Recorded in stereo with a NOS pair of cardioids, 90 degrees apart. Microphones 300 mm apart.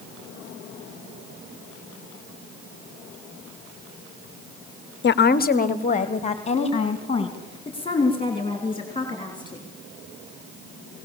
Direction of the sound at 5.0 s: 40° left.